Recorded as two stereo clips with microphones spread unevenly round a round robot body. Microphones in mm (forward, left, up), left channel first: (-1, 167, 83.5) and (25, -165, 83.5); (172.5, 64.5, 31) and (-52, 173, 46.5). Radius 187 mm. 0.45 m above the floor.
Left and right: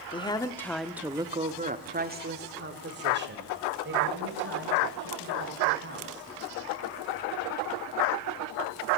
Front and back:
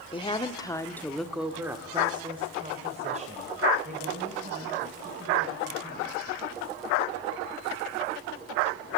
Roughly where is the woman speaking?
Ahead left.